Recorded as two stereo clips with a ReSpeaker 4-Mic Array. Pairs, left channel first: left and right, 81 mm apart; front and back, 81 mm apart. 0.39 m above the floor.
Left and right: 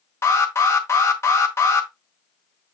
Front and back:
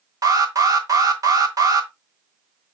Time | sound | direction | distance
0.2 | an alarm | 140° left | 1.6 m